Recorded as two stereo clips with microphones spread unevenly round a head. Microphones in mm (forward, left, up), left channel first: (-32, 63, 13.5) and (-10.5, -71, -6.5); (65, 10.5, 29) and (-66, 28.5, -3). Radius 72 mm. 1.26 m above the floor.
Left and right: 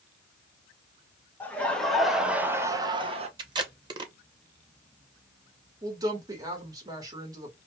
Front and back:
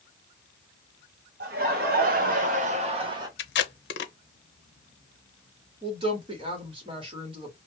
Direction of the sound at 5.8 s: 140° right.